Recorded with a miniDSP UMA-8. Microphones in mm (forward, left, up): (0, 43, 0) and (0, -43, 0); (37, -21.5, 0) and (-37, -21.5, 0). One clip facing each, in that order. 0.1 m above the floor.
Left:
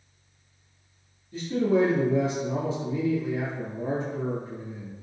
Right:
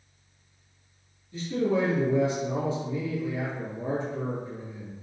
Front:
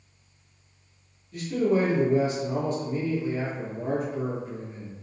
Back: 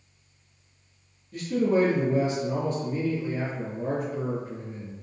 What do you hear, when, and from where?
1.3 s a man speaking: 130° left, 1.4 m